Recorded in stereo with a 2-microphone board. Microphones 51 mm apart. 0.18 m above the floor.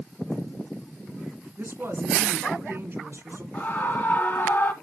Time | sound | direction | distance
1.6 | a woman speaking | 50° right (ahead or behind) | 1.8 m
3.5 | a scream | 40° left (ahead or behind) | 2.5 m